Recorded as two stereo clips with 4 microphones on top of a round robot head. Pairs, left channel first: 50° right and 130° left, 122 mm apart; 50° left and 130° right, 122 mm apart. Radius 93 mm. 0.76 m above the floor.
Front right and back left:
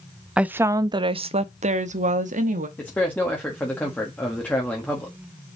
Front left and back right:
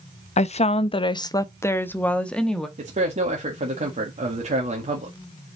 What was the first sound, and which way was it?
A woman speaking, 50° left.